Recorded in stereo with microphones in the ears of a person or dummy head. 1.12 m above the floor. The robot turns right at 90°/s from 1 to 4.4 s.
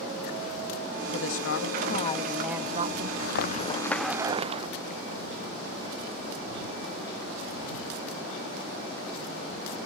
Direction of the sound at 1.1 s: 65° left.